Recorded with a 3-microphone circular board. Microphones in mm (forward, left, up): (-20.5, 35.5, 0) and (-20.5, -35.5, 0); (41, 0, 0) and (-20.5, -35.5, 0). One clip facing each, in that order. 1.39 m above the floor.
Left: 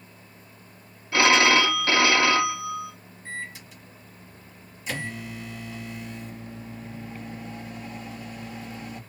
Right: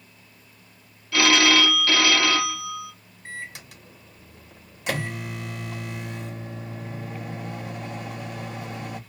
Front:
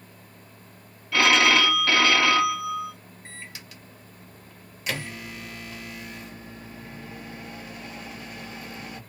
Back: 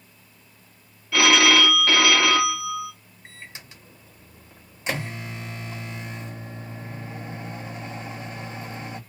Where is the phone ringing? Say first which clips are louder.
Left 1 dB, back 2 dB; 125° left, 0.6 m.